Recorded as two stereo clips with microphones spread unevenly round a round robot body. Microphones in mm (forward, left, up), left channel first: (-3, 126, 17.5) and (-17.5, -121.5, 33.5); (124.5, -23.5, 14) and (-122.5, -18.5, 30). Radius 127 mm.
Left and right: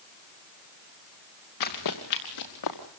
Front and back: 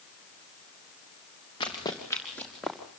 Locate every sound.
1.6 s running footsteps: 70° left, 4 m; by 2.9 s 90° left, 4 m